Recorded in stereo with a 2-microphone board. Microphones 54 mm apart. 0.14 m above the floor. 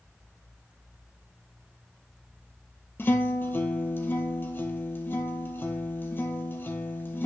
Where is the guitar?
40° left (ahead or behind), 1.0 m.